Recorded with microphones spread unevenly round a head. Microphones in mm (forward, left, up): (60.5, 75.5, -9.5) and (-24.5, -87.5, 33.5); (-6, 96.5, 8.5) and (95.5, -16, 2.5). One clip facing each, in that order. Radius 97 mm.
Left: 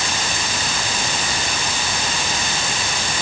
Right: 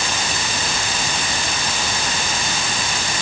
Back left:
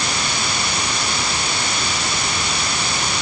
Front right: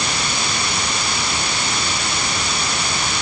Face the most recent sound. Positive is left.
No sound to turn to.